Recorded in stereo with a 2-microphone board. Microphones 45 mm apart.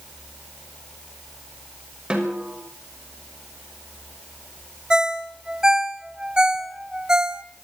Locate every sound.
2.1 s a snare drum: 20° right (ahead or behind), 6 m
4.9 s a ringtone: 20° right (ahead or behind), 1.0 m